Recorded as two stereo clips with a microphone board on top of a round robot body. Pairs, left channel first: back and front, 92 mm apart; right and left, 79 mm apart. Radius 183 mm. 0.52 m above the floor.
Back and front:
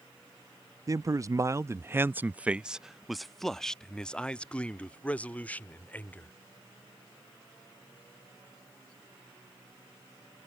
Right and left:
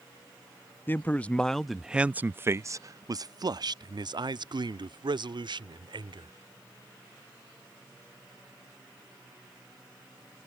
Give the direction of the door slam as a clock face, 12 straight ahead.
No door slam in this recording.